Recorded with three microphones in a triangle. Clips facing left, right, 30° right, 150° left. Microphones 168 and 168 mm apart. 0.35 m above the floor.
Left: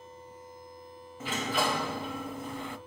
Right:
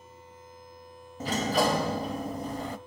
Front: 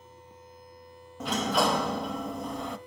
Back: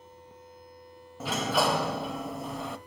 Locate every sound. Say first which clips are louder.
1.2 s a sliding door: right 5 dB, front 1 dB; 125° right, 1.0 m